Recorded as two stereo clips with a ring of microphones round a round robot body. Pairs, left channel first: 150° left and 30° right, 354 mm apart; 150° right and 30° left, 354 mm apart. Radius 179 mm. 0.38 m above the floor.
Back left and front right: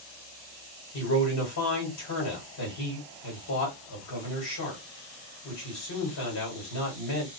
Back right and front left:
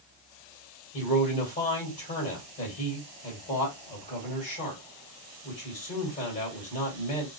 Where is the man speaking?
150° left, 1.7 m.